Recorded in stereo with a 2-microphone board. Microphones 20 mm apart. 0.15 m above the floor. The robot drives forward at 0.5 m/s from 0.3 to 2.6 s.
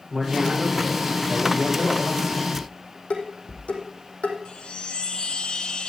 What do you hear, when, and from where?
0.1 s a man speaking: 25° right (ahead or behind), 7 m; by 2.5 s 30° right (ahead or behind), 6 m
2.5 s dishes clattering: 80° left, 5 m
4.5 s a chime: 45° left (ahead or behind), 1.0 m